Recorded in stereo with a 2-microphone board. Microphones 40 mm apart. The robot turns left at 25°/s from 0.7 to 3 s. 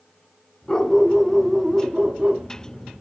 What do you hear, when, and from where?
0.7 s a dog barking: 20° left, 0.9 m; by 2.5 s 25° right, 0.9 m